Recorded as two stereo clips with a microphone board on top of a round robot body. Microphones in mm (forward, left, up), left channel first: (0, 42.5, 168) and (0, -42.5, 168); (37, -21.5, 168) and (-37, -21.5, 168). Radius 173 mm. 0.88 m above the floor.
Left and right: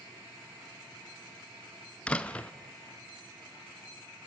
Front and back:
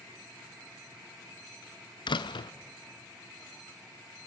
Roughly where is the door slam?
Ahead.